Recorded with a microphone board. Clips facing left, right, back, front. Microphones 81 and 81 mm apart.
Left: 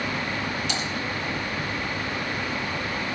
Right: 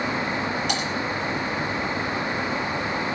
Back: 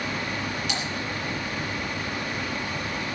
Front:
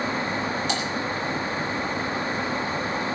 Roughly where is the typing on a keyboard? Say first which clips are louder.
Right 3 dB, front 4 dB; ahead right.